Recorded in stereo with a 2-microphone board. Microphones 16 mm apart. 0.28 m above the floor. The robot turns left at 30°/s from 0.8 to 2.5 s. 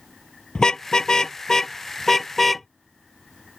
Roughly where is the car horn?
Left.